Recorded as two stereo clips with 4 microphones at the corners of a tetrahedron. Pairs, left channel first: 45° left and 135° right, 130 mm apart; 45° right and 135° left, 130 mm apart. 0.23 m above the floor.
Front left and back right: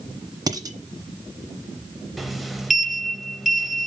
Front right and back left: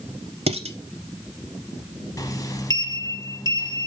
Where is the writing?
I don't hear writing.